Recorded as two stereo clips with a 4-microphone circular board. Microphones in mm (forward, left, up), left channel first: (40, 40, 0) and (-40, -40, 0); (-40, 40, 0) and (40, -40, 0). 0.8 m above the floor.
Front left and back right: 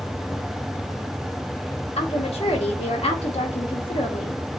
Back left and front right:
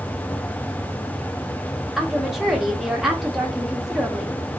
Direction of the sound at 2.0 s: 45° left.